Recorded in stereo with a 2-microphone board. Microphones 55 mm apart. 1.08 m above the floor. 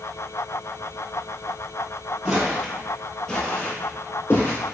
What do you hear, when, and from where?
2.2 s footsteps: 20° right (ahead or behind), 1.2 m; by 4.6 s 45° left (ahead or behind), 1.4 m